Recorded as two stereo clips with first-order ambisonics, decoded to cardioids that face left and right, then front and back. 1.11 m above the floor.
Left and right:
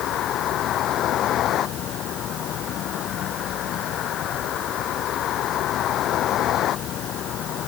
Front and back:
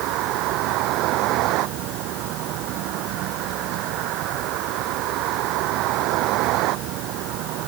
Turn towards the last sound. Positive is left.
turn(degrees=145)